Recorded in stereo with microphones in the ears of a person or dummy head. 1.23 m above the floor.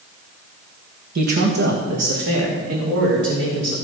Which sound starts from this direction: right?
A man speaking, at 1.1 s.